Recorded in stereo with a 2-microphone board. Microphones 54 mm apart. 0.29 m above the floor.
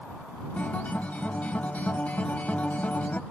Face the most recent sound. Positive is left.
turn(degrees=30)  # may be behind; listen again after turning